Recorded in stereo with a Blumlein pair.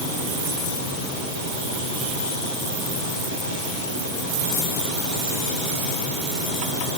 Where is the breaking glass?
No breaking glass in this recording.